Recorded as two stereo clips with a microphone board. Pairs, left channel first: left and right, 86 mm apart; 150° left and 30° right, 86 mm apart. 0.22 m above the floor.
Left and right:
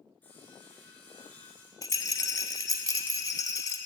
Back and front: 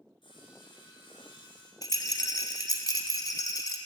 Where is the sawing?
160° left, 2.5 m.